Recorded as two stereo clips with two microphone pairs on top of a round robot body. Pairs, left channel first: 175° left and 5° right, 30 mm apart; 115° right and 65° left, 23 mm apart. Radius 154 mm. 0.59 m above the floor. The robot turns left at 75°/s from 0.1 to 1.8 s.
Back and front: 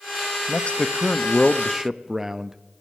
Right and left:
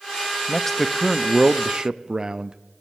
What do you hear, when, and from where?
0.5 s a man speaking: 165° left, 0.8 m; by 2.6 s 65° left, 0.8 m